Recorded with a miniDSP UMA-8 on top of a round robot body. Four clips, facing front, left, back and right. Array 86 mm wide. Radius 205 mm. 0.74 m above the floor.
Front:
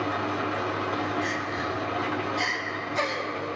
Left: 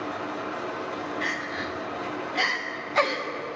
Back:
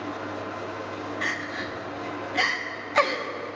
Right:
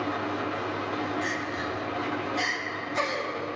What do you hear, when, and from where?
0.0 s an engine running: 20° right, 2.5 m
1.2 s crying: 160° left, 2 m